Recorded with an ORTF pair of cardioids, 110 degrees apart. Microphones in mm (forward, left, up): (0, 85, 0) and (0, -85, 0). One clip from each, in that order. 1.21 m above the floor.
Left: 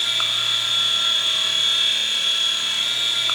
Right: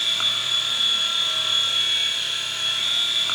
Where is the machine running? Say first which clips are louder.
Left 1 dB; 20° left, 1.8 m.